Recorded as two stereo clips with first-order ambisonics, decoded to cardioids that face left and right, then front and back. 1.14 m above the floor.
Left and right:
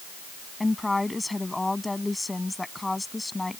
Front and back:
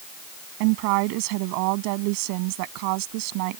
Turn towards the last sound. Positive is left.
turn(degrees=175)